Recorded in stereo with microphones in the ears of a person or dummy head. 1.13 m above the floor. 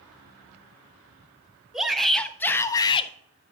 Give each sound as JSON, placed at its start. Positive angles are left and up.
{"t": 1.7, "sound": "a shout", "side_deg": 0, "distance_m": 1.1}